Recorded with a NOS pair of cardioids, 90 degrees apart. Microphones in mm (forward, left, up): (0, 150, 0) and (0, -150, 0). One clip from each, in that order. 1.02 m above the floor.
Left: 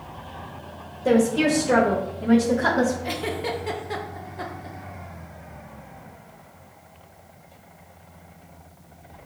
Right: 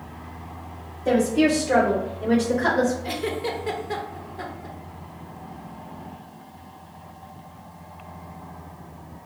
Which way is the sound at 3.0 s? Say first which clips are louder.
Even; 10° left.